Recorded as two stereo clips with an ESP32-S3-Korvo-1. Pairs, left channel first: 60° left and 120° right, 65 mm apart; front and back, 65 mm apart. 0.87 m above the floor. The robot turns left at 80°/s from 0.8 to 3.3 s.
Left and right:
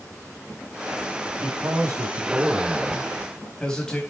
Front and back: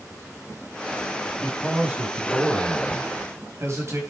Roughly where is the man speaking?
Right.